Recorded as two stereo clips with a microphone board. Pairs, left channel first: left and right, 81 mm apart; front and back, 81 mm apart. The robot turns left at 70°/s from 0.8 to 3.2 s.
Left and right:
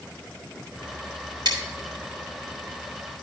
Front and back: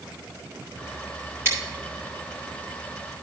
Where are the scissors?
120° right, 3 m; by 1.6 s 125° right, 3 m.